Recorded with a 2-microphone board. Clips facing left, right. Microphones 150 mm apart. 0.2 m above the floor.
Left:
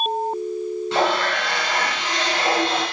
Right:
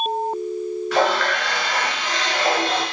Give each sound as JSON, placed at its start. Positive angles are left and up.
{"t": 0.9, "sound": "a running tap", "side_deg": 25, "distance_m": 1.4}